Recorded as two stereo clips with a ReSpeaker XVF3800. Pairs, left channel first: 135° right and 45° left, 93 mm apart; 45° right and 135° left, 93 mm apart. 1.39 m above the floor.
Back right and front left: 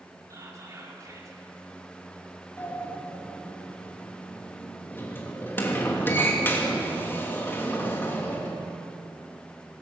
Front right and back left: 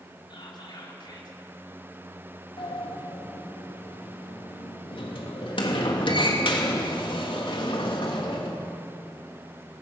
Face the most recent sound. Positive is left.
turn(degrees=-70)